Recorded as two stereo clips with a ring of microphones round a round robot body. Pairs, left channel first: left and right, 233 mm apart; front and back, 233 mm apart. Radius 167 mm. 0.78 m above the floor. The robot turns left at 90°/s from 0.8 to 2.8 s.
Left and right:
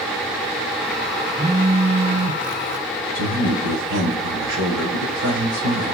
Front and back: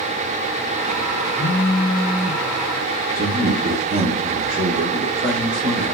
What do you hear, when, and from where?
1.4 s a phone buzzing: 10° right, 0.7 m; by 2.4 s 105° right, 0.7 m
3.1 s a man speaking: 105° right, 4 m